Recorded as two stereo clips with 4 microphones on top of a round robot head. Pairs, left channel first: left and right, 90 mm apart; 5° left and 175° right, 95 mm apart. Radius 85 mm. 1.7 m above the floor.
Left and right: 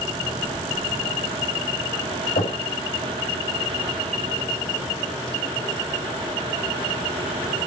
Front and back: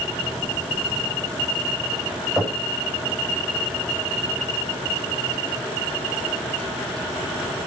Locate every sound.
2.4 s knocking: 95° left, 8 m